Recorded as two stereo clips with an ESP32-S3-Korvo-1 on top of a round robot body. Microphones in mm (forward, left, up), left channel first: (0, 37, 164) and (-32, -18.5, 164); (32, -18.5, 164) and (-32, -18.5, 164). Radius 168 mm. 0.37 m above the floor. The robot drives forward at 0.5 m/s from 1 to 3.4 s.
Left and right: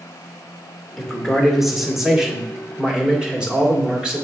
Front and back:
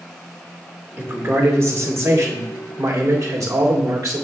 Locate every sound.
1.0 s a man speaking: 145° left, 1.6 m; by 4.2 s 165° left, 2.5 m